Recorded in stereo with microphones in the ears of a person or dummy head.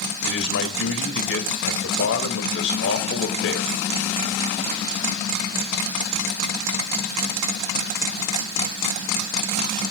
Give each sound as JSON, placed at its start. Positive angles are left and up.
{"t": 0.2, "sound": "a man speaking", "side_deg": 70, "distance_m": 3.0}